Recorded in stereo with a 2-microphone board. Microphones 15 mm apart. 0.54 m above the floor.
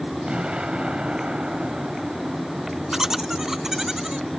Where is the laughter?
30° right (ahead or behind).